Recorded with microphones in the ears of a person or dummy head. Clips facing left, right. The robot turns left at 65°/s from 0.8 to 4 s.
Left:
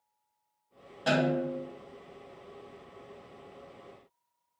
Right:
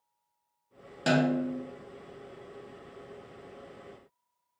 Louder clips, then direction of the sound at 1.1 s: Right 1 dB; 135° right.